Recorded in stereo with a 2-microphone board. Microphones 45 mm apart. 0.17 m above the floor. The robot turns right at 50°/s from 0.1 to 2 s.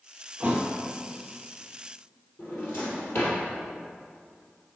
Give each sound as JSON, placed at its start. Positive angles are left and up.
{"t": 0.4, "sound": "a thud", "side_deg": -25, "distance_m": 1.3}
{"t": 2.4, "sound": "a drawer", "side_deg": 55, "distance_m": 2.5}